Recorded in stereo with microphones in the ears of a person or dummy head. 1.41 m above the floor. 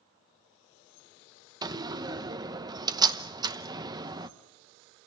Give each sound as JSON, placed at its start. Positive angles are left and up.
{"t": 1.6, "sound": "a door slam", "side_deg": -15, "distance_m": 0.9}